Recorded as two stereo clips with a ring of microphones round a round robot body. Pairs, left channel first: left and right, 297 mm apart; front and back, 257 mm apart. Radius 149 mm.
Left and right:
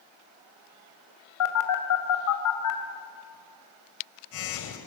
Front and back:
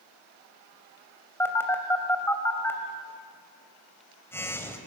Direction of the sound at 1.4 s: 80° left.